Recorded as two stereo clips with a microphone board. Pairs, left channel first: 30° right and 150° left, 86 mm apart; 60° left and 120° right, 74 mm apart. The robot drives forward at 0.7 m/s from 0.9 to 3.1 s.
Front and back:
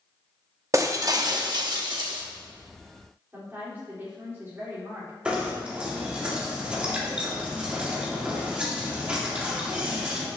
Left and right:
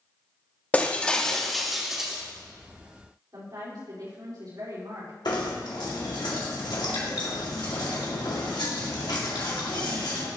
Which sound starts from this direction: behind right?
A woman speaking, at 3.3 s.